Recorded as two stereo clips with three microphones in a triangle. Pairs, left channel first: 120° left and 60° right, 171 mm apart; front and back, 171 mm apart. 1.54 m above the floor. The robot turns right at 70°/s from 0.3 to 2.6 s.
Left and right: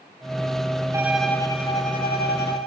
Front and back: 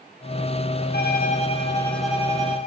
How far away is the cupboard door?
No cupboard door in this recording.